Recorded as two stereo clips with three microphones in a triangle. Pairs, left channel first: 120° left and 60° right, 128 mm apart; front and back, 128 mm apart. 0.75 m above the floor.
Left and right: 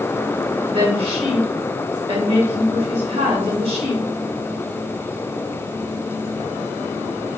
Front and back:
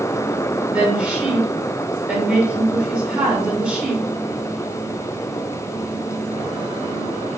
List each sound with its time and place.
0.7 s a woman speaking: 95° right, 2.5 m